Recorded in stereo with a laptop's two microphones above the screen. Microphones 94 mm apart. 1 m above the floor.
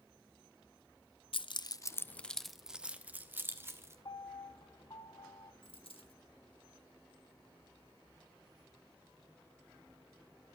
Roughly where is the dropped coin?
Left.